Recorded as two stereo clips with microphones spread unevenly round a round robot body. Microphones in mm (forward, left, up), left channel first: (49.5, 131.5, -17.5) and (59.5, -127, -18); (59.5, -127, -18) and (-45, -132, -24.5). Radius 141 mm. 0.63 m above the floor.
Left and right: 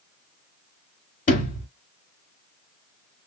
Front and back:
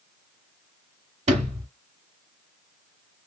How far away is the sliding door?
About 1.0 m.